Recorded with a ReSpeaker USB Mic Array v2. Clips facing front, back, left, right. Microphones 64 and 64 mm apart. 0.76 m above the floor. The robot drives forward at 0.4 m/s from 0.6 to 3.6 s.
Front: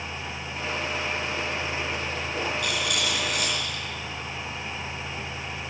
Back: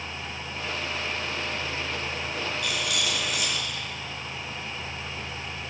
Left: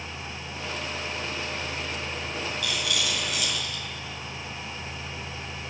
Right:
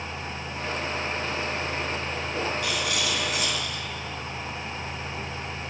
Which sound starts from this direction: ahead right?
A rattle, at 2.6 s.